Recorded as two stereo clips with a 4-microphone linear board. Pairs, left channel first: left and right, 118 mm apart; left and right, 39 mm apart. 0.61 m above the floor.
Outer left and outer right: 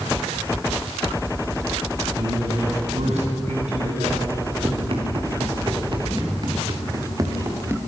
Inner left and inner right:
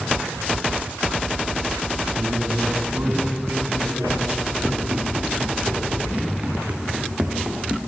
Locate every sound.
2.2 s a man speaking: 80° right, 3.5 m; by 4.3 s 65° right (ahead or behind), 6.5 m
4.6 s running footsteps: 55° right (ahead or behind), 5 m; by 7.8 s 20° right (ahead or behind), 4.5 m